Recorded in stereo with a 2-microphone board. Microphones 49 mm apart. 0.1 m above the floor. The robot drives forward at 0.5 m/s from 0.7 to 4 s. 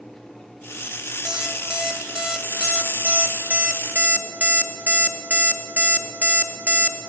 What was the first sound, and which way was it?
An alarm clock, 10° right (ahead or behind).